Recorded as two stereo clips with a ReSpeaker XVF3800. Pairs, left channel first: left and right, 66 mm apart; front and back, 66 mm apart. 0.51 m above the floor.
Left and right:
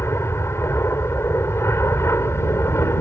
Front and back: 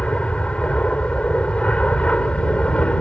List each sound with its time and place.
0.0 s an aircraft: 65° left